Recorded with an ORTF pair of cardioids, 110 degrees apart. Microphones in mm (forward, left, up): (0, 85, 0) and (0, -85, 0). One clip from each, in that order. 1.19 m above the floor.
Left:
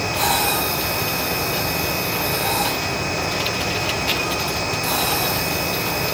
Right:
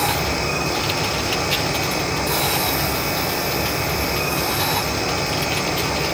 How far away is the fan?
About 9 m.